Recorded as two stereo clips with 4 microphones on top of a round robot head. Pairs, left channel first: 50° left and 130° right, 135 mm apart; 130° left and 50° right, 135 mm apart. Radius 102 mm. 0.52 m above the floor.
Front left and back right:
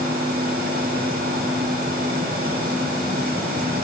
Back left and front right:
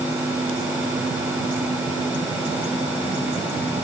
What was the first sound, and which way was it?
Only background noise.